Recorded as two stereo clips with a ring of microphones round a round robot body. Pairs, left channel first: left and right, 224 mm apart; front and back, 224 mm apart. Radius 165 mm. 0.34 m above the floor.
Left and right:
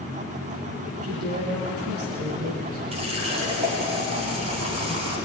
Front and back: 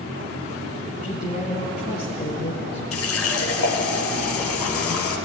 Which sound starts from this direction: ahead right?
A woman speaking, at 1.0 s.